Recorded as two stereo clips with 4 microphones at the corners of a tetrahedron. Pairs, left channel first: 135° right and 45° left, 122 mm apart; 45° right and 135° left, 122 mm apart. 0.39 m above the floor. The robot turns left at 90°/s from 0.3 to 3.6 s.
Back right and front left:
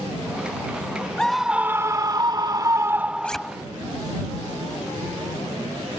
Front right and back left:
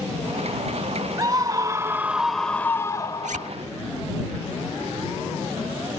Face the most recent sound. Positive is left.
turn(degrees=115)